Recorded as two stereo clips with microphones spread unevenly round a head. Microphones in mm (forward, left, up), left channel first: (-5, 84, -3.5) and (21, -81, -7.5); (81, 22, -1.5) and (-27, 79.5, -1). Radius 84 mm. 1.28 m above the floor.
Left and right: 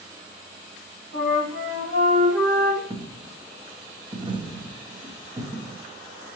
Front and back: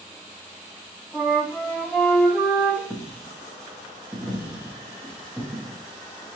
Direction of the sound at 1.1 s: 105° right.